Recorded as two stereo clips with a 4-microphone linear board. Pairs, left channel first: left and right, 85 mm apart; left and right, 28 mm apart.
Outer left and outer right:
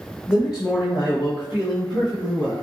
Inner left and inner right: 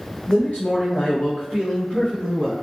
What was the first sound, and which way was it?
A man speaking, 55° left (ahead or behind).